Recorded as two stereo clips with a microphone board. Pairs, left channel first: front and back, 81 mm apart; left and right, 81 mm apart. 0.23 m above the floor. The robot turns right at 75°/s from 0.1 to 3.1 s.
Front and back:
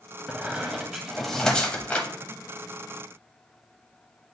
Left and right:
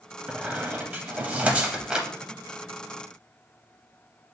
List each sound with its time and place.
0.3 s a squeak: 155° right, 0.7 m; by 2.1 s 20° right, 0.7 m